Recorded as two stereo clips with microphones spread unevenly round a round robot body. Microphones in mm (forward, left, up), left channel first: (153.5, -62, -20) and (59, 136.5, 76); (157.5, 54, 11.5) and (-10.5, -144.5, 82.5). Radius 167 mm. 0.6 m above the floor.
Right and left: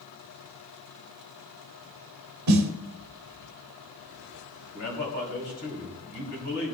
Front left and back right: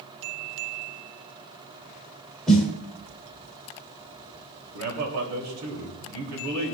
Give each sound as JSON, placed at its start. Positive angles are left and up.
{"t": 2.5, "sound": "a snare drum", "azimuth_deg": 135, "distance_m": 1.0}
{"t": 4.7, "sound": "a man speaking", "azimuth_deg": -105, "distance_m": 3.0}